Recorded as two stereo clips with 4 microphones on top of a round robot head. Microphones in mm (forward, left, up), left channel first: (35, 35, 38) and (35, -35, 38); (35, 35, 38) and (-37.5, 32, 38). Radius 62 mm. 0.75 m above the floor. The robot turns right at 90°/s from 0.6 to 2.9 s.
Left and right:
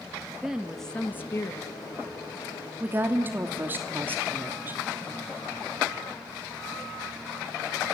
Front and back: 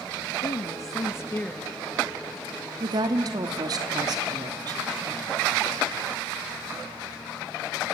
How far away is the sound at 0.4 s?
About 0.6 m.